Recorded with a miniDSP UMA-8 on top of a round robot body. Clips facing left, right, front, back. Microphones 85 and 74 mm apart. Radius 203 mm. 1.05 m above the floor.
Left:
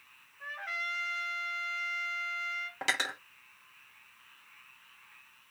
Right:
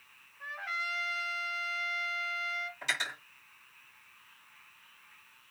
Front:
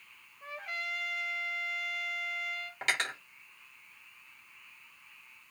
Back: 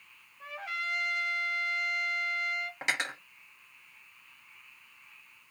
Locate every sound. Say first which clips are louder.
0.4 s a trumpet: right 1 dB, back 3 dB; 175° right, 1.0 m
2.8 s cutlery clinking: left 5 dB, front 2 dB; 105° left, 1.0 m